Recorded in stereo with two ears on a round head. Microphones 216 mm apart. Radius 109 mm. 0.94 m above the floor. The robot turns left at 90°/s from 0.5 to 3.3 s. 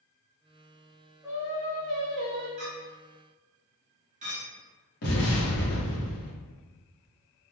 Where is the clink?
80° right, 1.4 m; by 4.5 s 30° right (ahead or behind), 1.4 m.